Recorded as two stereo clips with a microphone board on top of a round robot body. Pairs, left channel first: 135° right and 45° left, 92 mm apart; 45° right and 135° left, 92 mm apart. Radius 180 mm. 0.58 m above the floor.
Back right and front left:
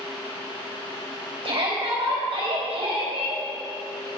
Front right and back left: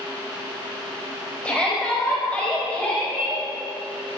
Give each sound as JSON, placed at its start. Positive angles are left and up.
{"t": 1.4, "sound": "a shout", "azimuth_deg": 30, "distance_m": 4.5}